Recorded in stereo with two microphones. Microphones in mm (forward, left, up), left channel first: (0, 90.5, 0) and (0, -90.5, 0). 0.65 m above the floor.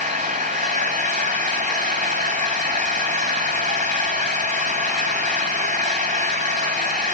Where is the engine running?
40° right (ahead or behind), 3 m.